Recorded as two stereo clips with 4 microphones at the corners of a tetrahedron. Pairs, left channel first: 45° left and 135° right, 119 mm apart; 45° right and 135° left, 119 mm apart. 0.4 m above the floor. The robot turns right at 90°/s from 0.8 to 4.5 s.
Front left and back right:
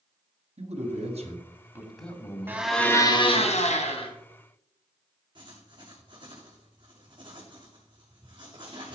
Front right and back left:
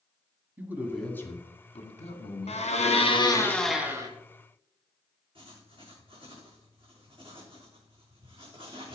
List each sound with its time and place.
0.6 s a man speaking: 150° right, 2.5 m; by 3.5 s 90° left, 2.5 m
2.5 s a blender: 65° right, 2.5 m; by 4.1 s 80° left, 2.5 m
5.3 s writing: 175° left, 5 m